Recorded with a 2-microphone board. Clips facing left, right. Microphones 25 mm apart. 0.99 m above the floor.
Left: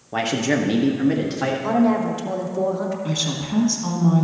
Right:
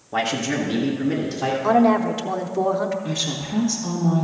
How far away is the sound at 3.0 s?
About 1.7 m.